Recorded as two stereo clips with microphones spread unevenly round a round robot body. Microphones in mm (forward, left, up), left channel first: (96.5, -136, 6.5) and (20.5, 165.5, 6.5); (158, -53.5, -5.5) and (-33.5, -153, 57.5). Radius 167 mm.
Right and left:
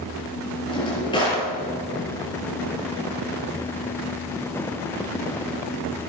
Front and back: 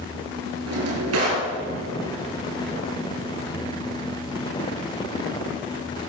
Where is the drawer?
155° right, 4.5 m.